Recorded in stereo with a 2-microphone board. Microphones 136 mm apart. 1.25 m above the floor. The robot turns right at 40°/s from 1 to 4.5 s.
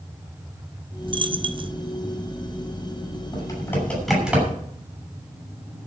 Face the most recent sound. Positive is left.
turn(degrees=-15)  # may be behind; listen again after turning